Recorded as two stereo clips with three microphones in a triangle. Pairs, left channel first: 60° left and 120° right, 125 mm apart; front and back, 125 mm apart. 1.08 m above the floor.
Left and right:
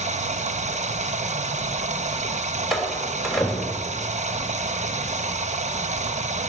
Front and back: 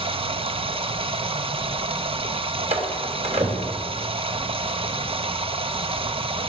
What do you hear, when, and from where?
0.0 s running water: 140° right, 1.0 m
2.7 s a door slam: 150° left, 3 m